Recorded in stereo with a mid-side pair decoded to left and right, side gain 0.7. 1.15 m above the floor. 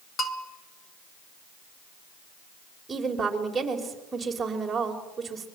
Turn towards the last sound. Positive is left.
turn(degrees=-20)